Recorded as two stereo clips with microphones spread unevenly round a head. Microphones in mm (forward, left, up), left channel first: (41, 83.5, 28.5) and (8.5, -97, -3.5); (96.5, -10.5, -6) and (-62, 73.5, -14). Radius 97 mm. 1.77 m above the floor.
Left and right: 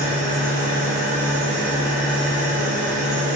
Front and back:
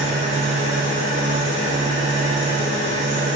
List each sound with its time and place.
0.0 s an engine running: 110° left, 1.3 m